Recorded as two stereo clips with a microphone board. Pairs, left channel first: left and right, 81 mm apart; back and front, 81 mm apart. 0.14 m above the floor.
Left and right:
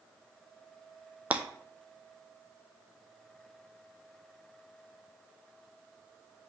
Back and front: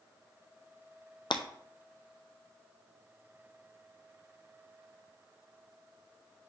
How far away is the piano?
I don't hear a piano.